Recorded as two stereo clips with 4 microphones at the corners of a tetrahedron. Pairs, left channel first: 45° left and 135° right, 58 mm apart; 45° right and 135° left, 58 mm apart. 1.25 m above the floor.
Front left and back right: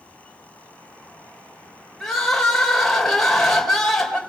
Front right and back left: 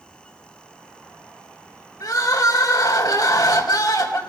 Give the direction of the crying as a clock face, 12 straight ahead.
1 o'clock.